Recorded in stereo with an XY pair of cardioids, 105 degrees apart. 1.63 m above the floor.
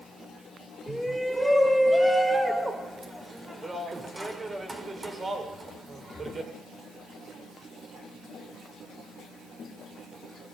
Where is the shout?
5° right, 8 m; by 6.5 s 40° right, 7.5 m.